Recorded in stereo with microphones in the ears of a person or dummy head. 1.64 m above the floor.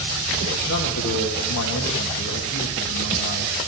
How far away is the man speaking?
About 2.5 m.